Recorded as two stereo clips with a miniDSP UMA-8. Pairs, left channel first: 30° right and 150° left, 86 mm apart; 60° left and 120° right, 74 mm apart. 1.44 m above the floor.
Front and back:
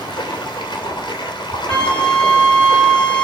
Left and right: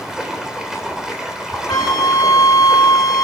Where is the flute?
45° left, 1.9 m.